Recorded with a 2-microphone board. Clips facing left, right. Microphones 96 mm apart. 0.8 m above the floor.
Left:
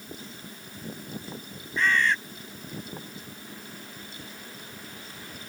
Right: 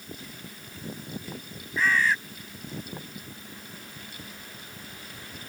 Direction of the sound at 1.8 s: 5° right (ahead or behind).